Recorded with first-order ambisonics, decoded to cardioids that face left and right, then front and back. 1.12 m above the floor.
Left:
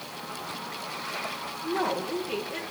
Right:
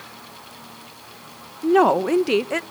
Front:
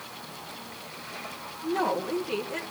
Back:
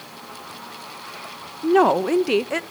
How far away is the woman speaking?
About 0.6 m.